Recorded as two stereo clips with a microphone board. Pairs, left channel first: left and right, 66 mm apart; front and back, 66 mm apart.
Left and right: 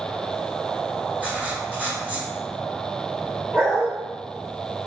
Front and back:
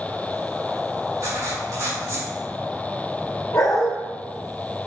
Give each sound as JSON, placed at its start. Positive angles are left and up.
{"t": 1.2, "sound": "writing", "azimuth_deg": -150, "distance_m": 1.7}
{"t": 3.5, "sound": "a dog barking", "azimuth_deg": -30, "distance_m": 1.1}